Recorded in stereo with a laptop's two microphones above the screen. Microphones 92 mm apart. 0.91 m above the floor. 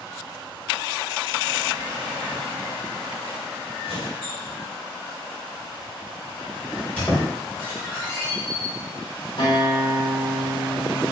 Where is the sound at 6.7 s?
20° left (ahead or behind), 1.7 m.